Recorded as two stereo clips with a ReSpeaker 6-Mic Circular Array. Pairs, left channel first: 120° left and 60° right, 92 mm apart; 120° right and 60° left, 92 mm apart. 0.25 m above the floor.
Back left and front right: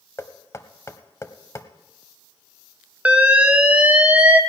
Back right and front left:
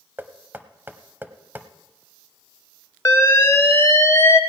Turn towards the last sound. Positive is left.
turn(degrees=-115)